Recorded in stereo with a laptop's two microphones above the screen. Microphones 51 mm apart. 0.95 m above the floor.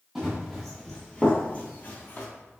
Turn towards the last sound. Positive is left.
turn(degrees=40)  # may be behind; listen again after turning